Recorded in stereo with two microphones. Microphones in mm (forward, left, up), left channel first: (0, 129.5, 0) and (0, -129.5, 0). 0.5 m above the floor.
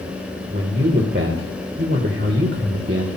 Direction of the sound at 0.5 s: 50° right (ahead or behind).